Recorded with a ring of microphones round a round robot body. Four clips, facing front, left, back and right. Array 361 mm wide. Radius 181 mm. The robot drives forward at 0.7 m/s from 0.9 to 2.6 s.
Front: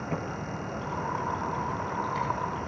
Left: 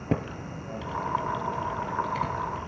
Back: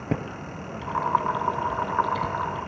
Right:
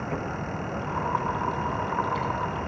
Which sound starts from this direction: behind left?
Typing on a keyboard, at 0.1 s.